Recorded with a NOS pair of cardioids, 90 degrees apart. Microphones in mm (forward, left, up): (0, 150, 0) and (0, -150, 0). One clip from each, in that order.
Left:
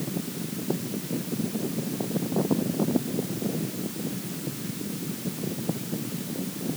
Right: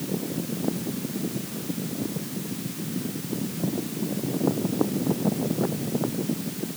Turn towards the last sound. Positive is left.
No sound to turn to.